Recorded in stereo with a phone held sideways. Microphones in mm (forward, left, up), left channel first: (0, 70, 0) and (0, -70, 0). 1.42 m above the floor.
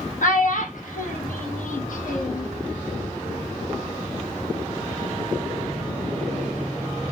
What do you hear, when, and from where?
0.2 s a child speaking: 70° left (ahead or behind), 1.4 m